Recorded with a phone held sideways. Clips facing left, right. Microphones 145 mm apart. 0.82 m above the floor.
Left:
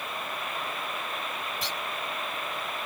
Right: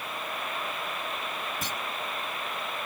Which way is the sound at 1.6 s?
45° right (ahead or behind).